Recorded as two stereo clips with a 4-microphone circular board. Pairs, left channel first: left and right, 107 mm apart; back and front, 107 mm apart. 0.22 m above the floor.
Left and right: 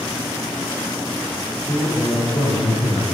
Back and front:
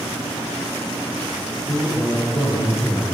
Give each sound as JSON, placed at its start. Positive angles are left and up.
{"t": 1.7, "sound": "a man speaking", "azimuth_deg": 125, "distance_m": 3.5}